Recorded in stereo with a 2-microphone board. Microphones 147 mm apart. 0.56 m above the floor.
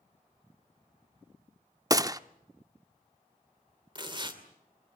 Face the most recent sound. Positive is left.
turn(degrees=-35)  # may be behind; listen again after turning